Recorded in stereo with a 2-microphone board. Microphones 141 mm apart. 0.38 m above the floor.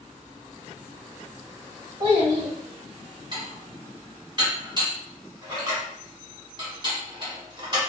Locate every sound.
2.0 s a child speaking: 35° right (ahead or behind), 1.6 m
3.3 s dishes clattering: 35° right (ahead or behind), 1.7 m